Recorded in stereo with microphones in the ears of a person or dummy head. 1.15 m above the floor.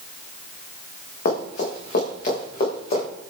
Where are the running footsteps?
50° left (ahead or behind), 6.5 m; by 3.0 s 45° left (ahead or behind), 7.5 m.